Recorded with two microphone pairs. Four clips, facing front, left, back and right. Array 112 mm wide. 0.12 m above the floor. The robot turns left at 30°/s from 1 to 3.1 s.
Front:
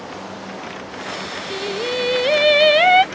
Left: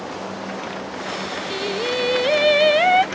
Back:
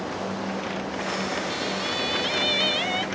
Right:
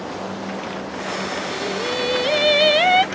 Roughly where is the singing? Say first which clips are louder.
Left 3 dB, front 5 dB; ahead left.